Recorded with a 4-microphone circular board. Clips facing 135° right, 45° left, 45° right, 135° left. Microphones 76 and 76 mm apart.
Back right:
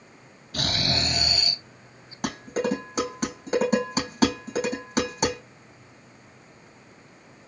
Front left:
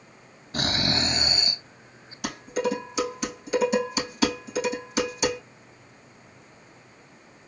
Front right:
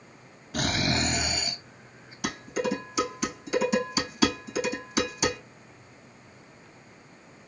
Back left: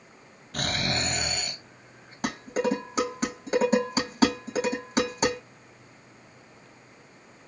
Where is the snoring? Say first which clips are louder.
Front left 2 dB, front right 2 dB; 35° left, 1.5 m.